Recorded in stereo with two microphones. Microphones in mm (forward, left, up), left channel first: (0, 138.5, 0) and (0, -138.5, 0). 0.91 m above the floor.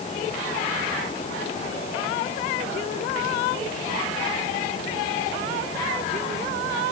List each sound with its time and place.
Only background noise.